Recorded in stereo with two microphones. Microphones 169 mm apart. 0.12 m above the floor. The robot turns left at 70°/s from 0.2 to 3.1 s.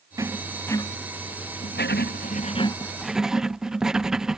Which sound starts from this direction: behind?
Writing, at 0.2 s.